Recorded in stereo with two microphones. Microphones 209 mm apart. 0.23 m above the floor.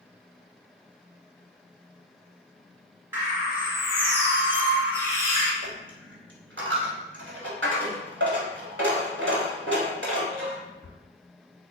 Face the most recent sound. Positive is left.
turn(degrees=-70)  # may be behind; listen again after turning